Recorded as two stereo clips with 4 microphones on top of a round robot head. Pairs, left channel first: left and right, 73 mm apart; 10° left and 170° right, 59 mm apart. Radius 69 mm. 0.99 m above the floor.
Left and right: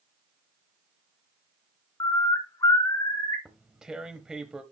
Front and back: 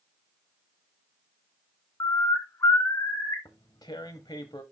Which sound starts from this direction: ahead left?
A bird, at 2.0 s.